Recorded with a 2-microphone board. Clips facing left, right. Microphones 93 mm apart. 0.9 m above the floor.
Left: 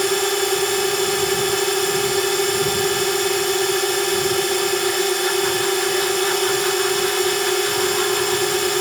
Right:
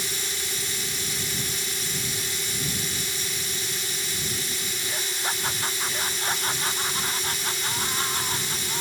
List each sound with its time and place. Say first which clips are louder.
0.0 s a drone: left 17 dB; 70° left (ahead or behind)